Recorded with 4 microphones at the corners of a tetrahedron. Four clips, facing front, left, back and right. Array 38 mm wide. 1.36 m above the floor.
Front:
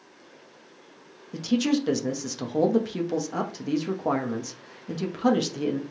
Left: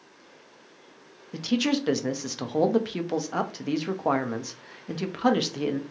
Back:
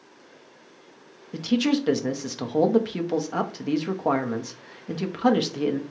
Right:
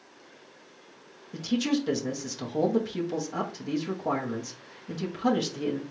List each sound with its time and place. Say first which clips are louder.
1.3 s a man speaking: left 2 dB, back 1 dB; 120° left, 0.6 m